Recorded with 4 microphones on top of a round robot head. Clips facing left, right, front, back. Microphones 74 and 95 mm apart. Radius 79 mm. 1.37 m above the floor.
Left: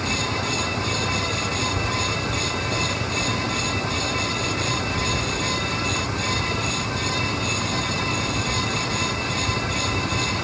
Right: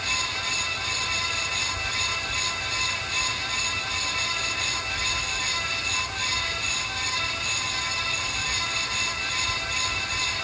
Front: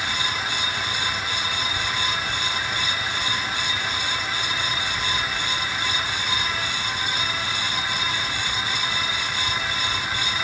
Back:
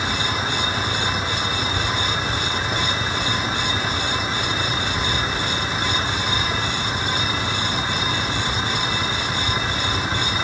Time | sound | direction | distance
0.0 | a vehicle | 115° left | ?